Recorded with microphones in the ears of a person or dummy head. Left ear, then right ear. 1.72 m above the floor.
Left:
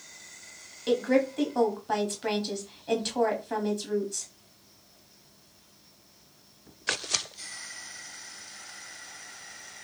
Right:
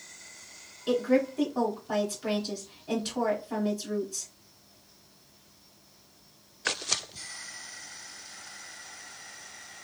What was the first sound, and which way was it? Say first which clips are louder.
A woman speaking: left 1 dB; 30° left (ahead or behind).